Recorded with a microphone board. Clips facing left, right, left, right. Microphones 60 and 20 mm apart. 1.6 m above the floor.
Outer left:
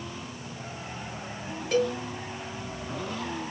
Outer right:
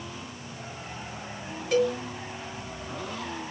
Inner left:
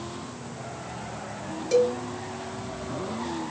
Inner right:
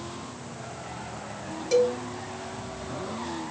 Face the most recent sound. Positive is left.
turn(degrees=0)  # may be behind; listen again after turning